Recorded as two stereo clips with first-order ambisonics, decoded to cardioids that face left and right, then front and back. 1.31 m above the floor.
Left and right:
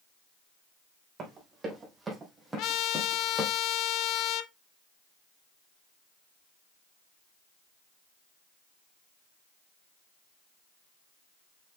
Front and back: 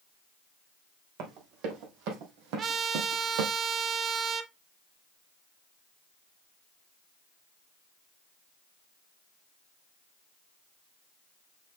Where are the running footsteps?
160° right, 3.5 m; by 3.5 s 165° left, 3 m.